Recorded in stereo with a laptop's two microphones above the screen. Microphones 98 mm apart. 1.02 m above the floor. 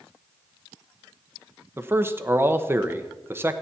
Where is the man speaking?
25° right (ahead or behind), 1.0 m.